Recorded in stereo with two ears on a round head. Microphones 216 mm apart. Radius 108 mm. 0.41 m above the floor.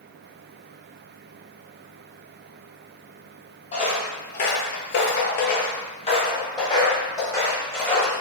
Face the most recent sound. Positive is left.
turn(degrees=10)  # may be behind; listen again after turning